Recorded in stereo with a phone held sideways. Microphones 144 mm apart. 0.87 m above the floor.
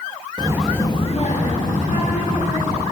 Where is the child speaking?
35° right (ahead or behind), 0.6 m; by 2.8 s 70° left (ahead or behind), 3 m.